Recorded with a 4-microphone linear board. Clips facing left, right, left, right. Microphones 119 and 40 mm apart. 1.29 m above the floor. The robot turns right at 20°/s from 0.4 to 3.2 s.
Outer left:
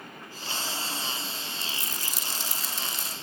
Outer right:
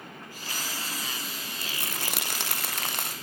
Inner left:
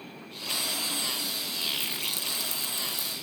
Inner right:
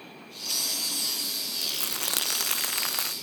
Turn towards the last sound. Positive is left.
turn(degrees=-70)